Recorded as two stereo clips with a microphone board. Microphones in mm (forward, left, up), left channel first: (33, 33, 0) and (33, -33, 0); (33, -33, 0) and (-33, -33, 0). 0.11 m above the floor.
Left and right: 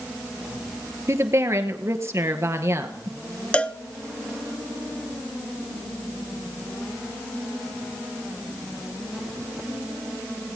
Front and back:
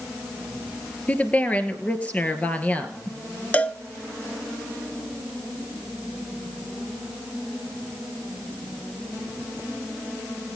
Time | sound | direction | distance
1.1 | a woman speaking | 60° right | 1.7 m
3.5 | a cowbell | 40° left | 0.5 m